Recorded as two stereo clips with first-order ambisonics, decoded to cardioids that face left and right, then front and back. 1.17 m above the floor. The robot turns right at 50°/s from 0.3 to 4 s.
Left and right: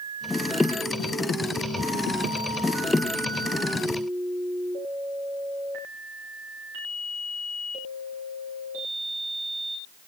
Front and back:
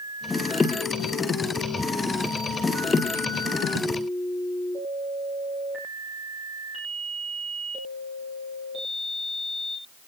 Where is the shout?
No shout in this recording.